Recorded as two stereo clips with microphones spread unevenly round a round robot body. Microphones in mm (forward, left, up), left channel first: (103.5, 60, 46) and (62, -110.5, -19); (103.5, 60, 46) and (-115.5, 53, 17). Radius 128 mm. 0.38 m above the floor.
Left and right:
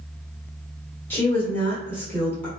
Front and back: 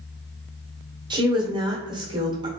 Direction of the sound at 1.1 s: 175° right.